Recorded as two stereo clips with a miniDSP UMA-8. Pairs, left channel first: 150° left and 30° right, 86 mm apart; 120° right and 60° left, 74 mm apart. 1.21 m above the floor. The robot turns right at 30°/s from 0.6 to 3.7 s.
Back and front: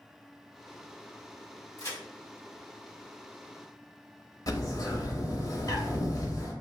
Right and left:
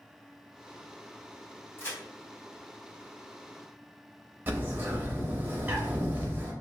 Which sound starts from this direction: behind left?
A bird, at 4.5 s.